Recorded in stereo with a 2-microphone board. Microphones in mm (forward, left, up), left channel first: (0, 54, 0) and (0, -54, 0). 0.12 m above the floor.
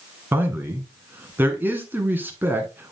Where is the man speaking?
20° right (ahead or behind), 1.4 m.